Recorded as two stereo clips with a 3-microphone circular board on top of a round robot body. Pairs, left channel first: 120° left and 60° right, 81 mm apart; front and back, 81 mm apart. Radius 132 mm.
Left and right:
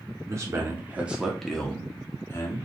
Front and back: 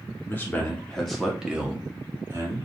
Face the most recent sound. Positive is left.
turn(degrees=145)